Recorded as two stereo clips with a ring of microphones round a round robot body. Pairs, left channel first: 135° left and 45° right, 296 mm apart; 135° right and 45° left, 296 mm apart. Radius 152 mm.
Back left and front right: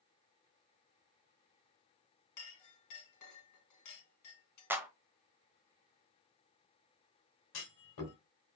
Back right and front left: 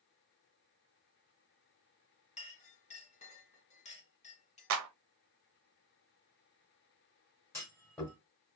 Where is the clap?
35° left, 1.1 m.